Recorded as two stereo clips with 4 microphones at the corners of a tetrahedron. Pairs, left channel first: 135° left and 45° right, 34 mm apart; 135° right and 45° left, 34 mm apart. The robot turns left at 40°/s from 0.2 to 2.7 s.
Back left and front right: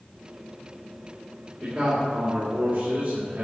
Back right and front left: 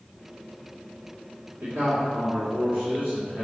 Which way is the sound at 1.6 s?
35° left.